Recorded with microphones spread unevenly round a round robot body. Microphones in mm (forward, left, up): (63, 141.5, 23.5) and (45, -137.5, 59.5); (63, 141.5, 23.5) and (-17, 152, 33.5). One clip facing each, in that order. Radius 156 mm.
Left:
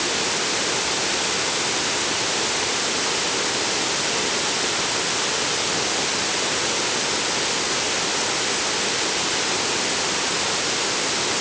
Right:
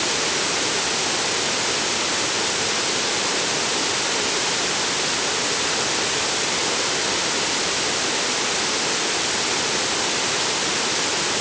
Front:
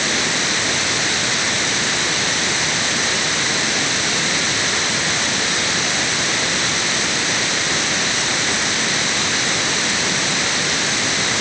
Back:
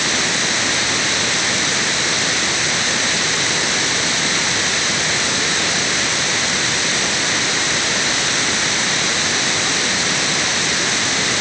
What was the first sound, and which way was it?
Only background noise.